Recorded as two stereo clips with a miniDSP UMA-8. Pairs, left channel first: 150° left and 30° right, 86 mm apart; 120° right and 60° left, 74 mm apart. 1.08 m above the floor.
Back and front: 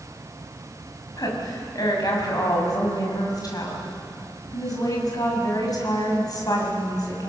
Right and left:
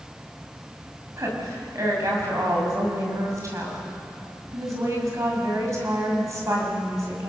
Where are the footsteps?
I don't hear footsteps.